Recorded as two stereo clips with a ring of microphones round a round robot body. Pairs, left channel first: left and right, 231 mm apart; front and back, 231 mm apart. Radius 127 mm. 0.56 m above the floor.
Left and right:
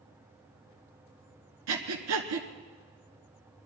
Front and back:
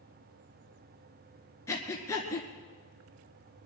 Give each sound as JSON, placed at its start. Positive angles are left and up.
{"t": 1.7, "sound": "breathing", "azimuth_deg": -80, "distance_m": 1.4}